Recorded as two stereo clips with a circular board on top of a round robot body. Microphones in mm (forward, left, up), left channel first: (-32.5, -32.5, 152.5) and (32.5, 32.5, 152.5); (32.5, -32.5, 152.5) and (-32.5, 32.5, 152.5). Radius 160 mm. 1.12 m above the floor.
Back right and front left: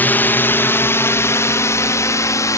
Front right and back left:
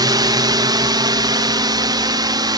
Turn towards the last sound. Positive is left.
turn(degrees=175)